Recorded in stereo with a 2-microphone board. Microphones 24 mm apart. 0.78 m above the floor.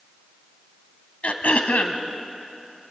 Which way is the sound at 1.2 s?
70° left (ahead or behind).